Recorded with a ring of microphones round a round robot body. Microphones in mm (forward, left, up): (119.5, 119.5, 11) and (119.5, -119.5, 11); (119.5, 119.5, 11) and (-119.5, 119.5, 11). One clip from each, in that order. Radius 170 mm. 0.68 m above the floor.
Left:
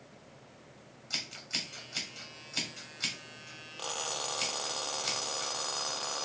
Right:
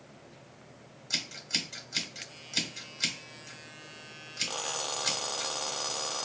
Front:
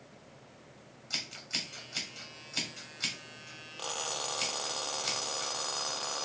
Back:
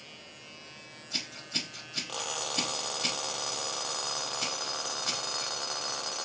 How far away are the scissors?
About 1.8 m.